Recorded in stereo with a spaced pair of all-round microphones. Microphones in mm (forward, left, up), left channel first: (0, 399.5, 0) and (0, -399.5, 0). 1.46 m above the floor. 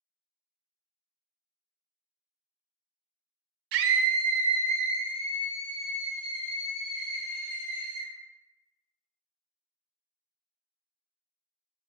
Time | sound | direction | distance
3.7 | a scream | 80° right | 0.5 m